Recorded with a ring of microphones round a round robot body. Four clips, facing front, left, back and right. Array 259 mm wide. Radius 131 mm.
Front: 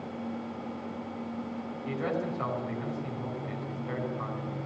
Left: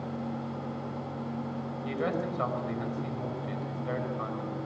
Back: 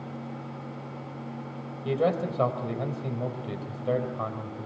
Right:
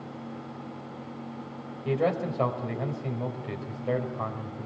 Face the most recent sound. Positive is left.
turn(degrees=-145)